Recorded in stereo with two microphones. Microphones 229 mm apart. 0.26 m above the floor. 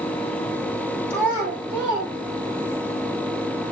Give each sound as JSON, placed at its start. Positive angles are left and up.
{"t": 1.1, "sound": "a child speaking", "side_deg": -60, "distance_m": 6.5}